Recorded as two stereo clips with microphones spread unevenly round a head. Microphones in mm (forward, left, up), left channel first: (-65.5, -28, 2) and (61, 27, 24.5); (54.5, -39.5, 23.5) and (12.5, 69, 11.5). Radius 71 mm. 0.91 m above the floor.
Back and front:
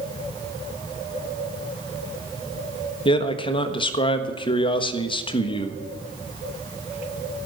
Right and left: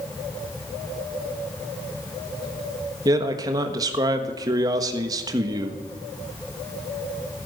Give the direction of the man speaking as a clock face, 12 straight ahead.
7 o'clock.